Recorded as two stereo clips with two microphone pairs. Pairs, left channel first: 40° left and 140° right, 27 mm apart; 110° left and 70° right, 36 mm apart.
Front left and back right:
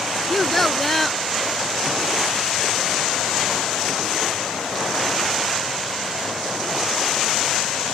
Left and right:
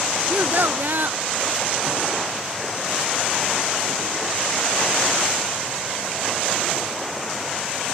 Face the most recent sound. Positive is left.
turn(degrees=-40)